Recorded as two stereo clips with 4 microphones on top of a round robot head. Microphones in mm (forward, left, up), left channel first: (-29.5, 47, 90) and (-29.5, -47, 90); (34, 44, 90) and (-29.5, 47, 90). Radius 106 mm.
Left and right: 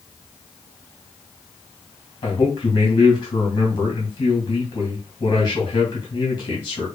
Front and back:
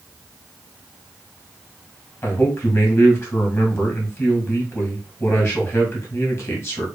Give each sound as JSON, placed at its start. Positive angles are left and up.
{"t": 2.2, "sound": "a man speaking", "azimuth_deg": 45, "distance_m": 2.0}